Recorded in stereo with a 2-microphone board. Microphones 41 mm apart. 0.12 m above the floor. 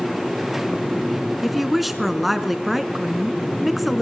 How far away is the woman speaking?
About 1.1 m.